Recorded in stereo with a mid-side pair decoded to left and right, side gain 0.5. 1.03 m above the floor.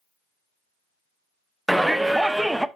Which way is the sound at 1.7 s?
5° right.